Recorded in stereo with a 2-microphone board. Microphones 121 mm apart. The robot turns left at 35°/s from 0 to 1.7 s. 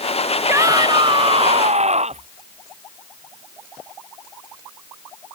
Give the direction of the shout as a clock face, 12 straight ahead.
1 o'clock.